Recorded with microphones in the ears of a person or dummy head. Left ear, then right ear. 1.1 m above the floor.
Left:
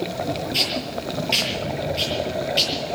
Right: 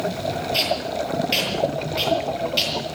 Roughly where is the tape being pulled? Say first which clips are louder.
Right 1 dB; centre.